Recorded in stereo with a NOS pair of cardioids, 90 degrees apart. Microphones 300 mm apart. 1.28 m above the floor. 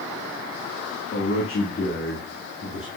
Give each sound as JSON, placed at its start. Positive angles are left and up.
{"t": 1.1, "sound": "a man speaking", "azimuth_deg": 45, "distance_m": 2.5}